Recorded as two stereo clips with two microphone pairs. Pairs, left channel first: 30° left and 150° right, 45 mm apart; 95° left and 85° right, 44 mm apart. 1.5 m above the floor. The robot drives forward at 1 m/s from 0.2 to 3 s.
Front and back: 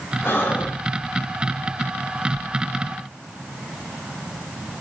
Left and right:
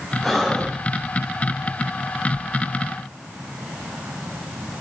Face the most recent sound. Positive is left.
turn(degrees=135)